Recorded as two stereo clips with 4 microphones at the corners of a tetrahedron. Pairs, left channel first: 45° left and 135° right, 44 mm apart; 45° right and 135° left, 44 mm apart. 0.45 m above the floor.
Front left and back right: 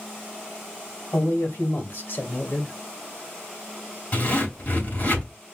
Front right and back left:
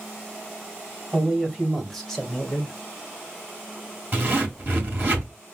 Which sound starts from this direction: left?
A zipper, at 4.1 s.